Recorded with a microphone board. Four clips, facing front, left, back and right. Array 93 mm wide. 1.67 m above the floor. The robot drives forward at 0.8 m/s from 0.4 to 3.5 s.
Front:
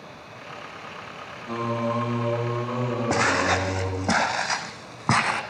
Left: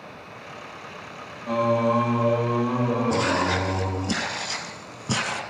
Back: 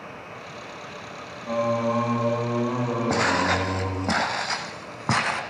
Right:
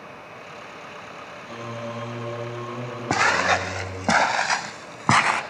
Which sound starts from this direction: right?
Footsteps, at 3.1 s.